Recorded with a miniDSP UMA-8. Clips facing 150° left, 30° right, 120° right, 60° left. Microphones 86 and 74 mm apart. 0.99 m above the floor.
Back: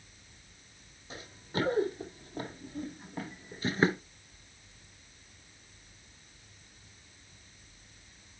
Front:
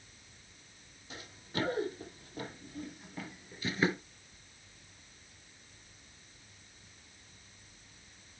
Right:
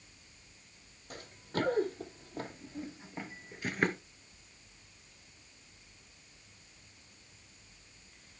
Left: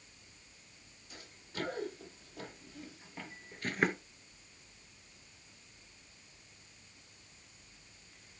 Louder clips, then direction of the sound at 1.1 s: Back 3 dB, right 10 dB; 150° right.